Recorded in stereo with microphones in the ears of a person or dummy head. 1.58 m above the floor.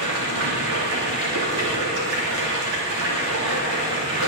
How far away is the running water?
About 3 m.